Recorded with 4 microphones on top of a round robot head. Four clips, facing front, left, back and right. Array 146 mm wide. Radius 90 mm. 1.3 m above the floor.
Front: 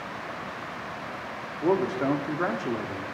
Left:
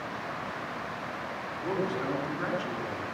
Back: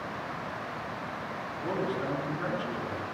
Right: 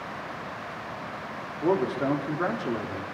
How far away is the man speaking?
About 4 m.